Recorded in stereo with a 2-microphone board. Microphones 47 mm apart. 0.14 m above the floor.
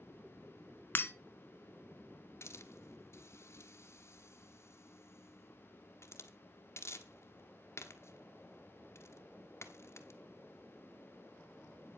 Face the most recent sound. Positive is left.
turn(degrees=60)  # may be behind; listen again after turning